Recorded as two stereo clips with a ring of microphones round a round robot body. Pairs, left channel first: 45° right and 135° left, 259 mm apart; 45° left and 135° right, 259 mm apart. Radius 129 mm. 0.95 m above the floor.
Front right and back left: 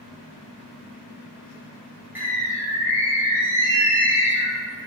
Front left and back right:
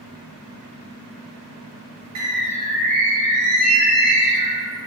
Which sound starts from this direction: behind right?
A bird, at 2.1 s.